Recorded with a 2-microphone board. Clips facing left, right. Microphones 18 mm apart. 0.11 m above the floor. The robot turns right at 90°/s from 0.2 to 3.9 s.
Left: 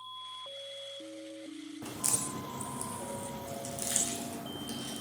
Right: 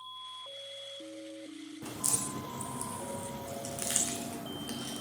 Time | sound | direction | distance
1.8 | a crack | 75° left (ahead or behind) | 1.0 m